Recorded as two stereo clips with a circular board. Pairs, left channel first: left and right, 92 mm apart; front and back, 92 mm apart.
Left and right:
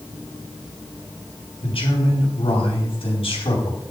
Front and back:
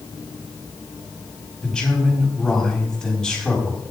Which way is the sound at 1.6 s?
80° left.